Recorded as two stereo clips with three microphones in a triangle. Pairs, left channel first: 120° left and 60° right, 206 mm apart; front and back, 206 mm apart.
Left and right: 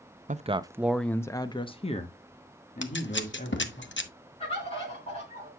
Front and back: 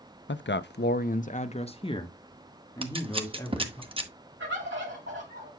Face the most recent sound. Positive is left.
turn(degrees=175)